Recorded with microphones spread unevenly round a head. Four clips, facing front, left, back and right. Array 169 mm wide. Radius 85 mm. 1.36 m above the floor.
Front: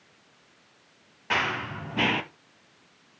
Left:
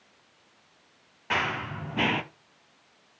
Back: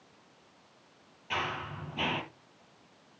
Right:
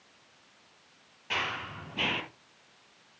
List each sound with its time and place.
1.3 s running footsteps: 35° left, 2 m